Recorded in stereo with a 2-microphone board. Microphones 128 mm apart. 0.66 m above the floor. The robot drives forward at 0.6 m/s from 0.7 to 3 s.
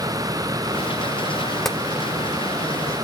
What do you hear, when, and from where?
1.6 s tapping: centre (ahead or behind), 0.6 m